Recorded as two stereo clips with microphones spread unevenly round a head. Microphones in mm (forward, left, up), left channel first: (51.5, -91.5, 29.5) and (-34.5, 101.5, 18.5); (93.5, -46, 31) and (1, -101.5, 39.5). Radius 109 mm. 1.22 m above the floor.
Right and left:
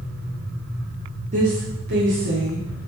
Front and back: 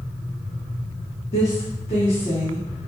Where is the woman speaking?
55° left, 1.0 m; by 2.9 s 90° left, 1.4 m.